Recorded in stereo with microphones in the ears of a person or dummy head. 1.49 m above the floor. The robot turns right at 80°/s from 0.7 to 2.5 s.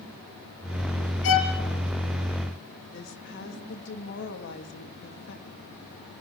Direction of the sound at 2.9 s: 60° left (ahead or behind).